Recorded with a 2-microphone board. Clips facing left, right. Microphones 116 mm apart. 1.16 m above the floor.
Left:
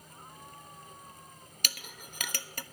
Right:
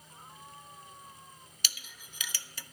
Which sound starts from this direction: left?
A clink, at 1.6 s.